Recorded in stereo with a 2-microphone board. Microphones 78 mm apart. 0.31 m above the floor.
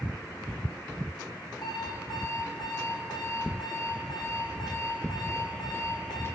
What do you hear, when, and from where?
1.6 s an alarm clock: 55° left (ahead or behind), 10 m